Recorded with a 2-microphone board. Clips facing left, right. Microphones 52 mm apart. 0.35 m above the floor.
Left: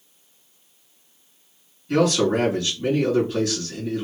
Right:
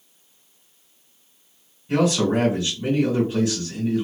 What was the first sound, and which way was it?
A man speaking, 25° right (ahead or behind).